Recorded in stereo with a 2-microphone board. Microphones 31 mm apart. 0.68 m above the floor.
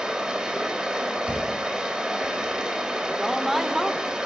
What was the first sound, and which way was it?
Running water, 25° right (ahead or behind).